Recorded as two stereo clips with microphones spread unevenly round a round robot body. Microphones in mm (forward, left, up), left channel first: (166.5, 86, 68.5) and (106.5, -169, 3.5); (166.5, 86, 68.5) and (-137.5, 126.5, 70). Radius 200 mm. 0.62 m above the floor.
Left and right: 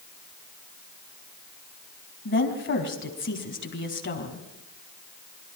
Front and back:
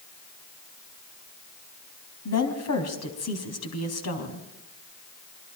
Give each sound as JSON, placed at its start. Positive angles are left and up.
{"t": 2.2, "sound": "a woman speaking", "azimuth_deg": 30, "distance_m": 4.5}